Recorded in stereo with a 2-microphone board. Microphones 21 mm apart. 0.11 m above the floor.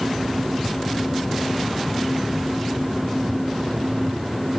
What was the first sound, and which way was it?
Only background noise.